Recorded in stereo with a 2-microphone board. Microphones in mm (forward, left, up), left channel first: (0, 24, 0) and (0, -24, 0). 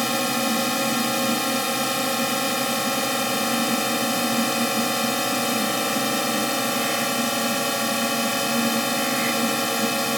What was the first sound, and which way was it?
A drone, 5° right (ahead or behind).